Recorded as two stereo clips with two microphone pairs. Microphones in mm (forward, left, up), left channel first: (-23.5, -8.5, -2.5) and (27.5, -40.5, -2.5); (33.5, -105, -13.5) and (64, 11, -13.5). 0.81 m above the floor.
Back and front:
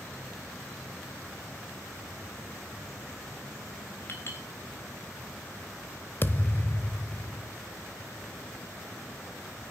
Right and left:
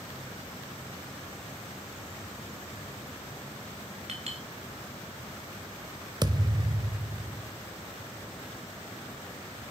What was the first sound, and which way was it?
A clink, 100° left.